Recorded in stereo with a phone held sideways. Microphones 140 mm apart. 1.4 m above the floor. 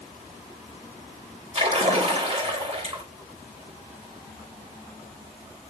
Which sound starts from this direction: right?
A splash, at 1.6 s.